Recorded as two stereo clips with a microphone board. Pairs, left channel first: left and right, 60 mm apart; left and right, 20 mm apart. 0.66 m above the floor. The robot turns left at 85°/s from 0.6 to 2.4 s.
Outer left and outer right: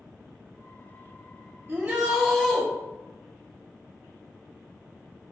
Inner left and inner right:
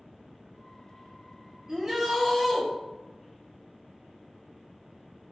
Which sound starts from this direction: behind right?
A shout, at 1.7 s.